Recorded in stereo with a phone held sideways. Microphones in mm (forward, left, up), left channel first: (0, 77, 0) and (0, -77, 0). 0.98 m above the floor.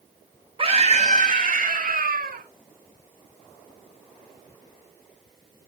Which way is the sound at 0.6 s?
35° right (ahead or behind).